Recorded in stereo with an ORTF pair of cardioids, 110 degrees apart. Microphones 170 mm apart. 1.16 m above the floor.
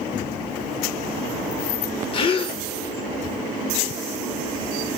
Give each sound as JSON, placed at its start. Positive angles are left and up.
{"t": 2.1, "sound": "a gasp", "azimuth_deg": 30, "distance_m": 0.6}